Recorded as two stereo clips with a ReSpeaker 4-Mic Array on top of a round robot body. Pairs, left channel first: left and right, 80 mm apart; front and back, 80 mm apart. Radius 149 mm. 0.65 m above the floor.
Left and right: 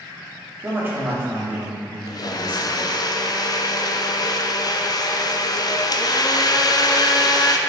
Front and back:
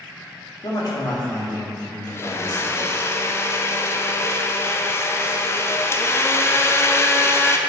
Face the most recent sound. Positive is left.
turn(degrees=55)